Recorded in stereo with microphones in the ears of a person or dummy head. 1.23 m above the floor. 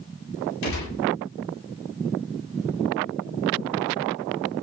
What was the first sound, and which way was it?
A gunshot, 70° left (ahead or behind).